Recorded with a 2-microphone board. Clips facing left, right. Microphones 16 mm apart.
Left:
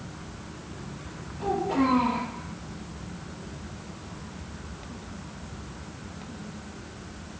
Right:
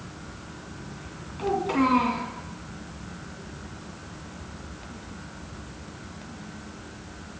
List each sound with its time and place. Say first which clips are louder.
1.4 s a child speaking: right 1 dB; 75° right (ahead or behind), 2.5 m